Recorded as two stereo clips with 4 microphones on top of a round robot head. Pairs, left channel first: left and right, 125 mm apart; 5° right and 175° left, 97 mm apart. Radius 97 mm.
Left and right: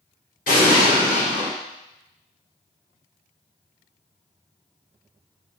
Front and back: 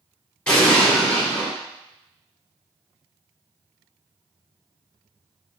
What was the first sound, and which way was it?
An explosion, 75° left.